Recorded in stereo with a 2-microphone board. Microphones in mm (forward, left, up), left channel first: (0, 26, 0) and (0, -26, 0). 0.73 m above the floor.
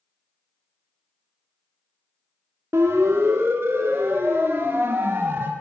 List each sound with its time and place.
2.7 s a siren: 60° right (ahead or behind), 2 m; by 5.5 s 45° right (ahead or behind), 3 m